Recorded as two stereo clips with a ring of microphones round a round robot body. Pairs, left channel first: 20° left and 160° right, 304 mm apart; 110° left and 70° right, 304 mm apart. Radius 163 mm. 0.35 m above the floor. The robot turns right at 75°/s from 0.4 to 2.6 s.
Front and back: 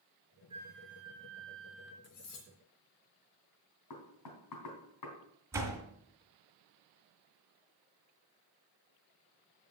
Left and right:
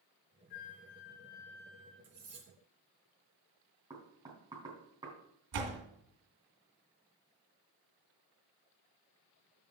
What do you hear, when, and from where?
0.5 s a flute: 125° left, 1.0 m; by 1.9 s 125° right, 1.0 m
2.0 s cutlery clinking: 20° right, 2.5 m; by 2.5 s 15° left, 2.5 m
3.9 s knocking: 10° left, 2.5 m
5.5 s a door slam: 75° right, 2.5 m